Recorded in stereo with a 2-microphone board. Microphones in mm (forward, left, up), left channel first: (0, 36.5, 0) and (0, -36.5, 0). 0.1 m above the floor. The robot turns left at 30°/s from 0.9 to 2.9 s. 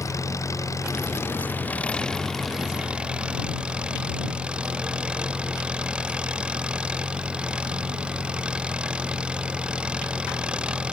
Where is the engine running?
45° left; by 10.9 s 15° right.